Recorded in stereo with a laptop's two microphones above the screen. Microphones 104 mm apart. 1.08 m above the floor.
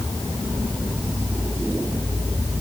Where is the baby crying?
No baby crying in this recording.